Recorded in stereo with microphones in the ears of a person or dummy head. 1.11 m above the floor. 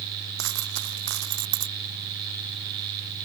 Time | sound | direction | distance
0.4 | a dropped coin | 70° right (ahead or behind) | ?